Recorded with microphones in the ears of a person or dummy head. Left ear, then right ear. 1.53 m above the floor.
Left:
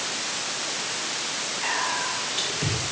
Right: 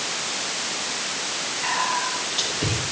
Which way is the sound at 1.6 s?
25° left (ahead or behind).